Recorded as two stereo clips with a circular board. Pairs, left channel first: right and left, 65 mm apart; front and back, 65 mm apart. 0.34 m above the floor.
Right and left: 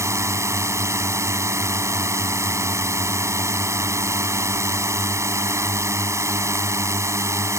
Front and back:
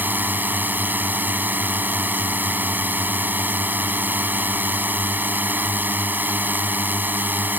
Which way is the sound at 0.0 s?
125° left.